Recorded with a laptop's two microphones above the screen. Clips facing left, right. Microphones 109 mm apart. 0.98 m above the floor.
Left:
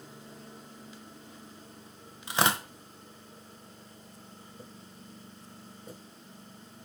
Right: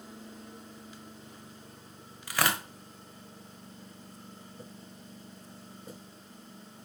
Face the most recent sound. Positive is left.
turn(degrees=25)  # may be behind; listen again after turning